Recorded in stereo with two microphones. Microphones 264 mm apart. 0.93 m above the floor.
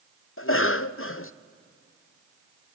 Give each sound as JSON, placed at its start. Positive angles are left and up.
{"t": 0.4, "sound": "a cough", "side_deg": 55, "distance_m": 0.6}